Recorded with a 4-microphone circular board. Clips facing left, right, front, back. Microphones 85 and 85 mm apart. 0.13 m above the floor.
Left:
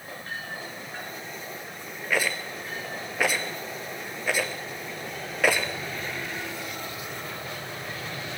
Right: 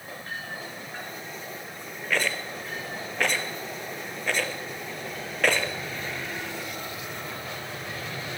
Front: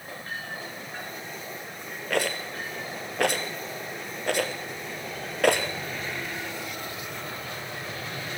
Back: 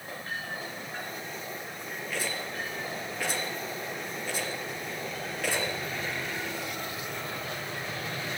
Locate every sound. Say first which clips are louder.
2.1 s a rattle: left 1 dB, front 8 dB; 10° left, 2 m